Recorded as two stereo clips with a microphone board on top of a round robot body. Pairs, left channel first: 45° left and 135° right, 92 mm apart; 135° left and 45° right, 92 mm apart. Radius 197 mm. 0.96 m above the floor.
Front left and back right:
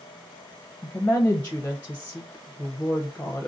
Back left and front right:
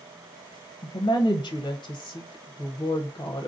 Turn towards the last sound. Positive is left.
turn(degrees=115)